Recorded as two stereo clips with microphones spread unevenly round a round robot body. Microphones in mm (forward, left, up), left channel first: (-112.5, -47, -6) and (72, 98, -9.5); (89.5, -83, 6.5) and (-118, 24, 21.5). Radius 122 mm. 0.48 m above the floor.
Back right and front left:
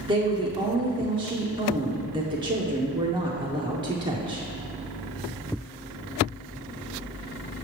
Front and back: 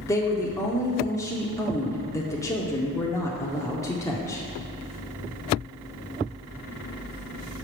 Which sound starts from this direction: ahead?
A woman speaking, at 0.1 s.